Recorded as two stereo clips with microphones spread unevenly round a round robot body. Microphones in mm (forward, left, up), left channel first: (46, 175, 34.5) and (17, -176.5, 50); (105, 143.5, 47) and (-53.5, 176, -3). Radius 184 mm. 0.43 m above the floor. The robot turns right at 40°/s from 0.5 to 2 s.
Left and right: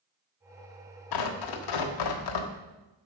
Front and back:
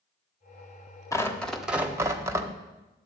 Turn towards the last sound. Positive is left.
turn(degrees=105)